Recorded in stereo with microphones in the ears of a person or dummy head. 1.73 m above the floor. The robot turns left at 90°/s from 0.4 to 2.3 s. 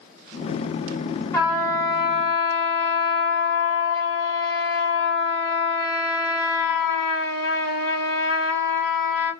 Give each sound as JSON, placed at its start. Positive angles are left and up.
{"t": 1.3, "sound": "a trumpet", "azimuth_deg": 170, "distance_m": 1.2}